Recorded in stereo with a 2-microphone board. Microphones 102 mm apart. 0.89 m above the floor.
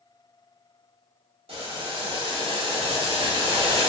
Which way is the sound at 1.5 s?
70° right (ahead or behind).